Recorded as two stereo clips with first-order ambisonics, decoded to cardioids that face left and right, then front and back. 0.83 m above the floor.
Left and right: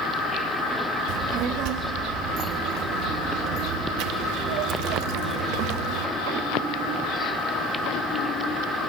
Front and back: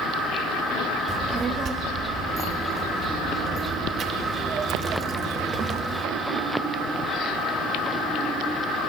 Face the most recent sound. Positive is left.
turn(degrees=-115)